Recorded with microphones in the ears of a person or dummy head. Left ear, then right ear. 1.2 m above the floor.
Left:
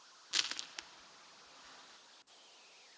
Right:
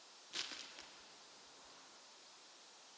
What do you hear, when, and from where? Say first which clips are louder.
0.3 s crushing: left 10 dB; 45° left (ahead or behind), 1.0 m